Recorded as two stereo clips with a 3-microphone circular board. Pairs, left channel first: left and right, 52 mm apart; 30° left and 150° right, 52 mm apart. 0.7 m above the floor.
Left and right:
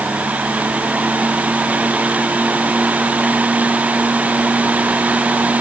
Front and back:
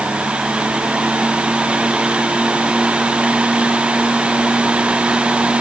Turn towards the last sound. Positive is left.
No sound to turn to.